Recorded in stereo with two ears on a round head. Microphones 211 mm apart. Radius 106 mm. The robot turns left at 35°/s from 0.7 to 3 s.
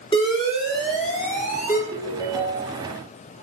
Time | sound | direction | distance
0.1 | an alarm | 145° left | 1.7 m
1.9 | a ringtone | 25° left | 3.5 m